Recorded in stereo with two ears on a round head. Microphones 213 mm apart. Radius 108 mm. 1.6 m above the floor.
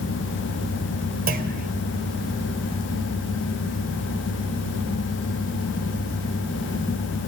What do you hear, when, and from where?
1.3 s a clunk: 40° right (ahead or behind), 1.6 m